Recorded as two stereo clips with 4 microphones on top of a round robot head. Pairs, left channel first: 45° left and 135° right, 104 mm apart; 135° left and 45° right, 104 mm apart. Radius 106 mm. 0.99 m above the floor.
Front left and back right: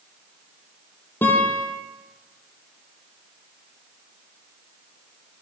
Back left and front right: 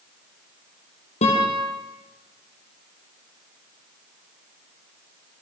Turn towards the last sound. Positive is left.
turn(degrees=120)